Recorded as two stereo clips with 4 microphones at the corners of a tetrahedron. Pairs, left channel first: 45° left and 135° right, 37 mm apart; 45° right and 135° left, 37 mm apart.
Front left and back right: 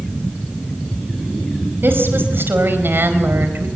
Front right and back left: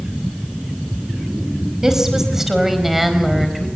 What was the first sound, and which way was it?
A woman speaking, 145° right.